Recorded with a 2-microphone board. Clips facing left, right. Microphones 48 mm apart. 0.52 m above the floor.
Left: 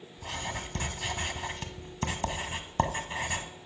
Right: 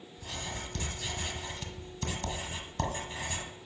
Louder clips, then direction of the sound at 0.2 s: Left 4 dB; 40° left (ahead or behind).